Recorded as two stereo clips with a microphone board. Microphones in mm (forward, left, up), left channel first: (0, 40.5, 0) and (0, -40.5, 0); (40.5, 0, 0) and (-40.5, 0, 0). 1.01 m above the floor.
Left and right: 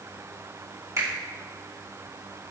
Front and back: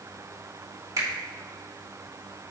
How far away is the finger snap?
About 2.5 m.